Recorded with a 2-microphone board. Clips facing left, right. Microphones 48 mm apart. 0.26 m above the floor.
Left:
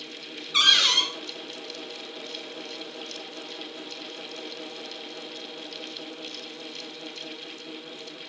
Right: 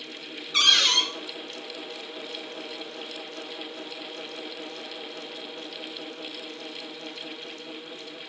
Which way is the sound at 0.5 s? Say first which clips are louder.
Even; 10° left (ahead or behind).